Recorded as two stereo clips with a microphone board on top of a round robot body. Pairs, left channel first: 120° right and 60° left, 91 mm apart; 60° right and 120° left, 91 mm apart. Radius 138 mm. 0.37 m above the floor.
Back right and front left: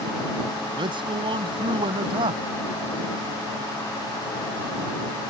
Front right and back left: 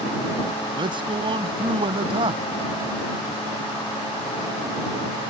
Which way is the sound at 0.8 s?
90° left.